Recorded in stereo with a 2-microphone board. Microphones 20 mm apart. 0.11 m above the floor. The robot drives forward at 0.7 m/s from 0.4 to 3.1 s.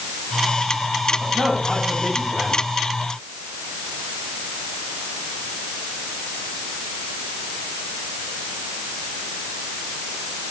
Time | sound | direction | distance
1.2 | a man speaking | 55° right (ahead or behind) | 9.5 m